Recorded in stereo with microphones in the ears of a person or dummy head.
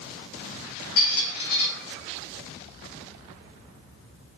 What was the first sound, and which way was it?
A squeak, 50° left (ahead or behind).